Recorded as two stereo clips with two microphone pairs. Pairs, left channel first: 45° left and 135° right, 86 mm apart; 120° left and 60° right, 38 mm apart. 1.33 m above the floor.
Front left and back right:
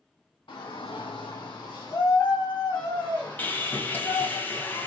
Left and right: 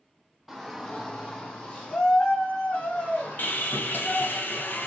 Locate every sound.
0.5 s a shout: 25° left, 0.7 m; by 4.4 s 125° left, 2.5 m
3.4 s sawing: 110° left, 0.6 m